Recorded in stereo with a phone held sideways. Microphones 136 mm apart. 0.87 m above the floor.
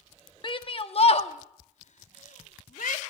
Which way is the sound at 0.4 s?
35° left (ahead or behind).